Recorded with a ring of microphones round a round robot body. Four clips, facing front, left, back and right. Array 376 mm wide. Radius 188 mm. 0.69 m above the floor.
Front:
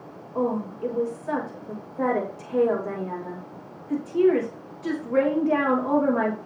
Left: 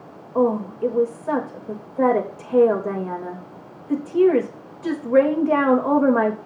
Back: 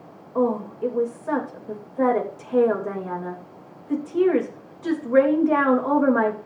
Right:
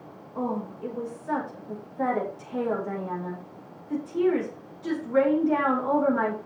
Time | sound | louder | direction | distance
0.3 | a woman speaking | left 10 dB, back 3 dB | 110° left | 3 m